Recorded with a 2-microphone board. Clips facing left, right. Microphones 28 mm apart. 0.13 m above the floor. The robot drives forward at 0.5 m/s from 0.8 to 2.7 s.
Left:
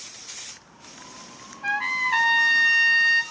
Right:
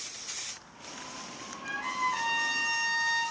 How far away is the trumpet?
About 1.0 m.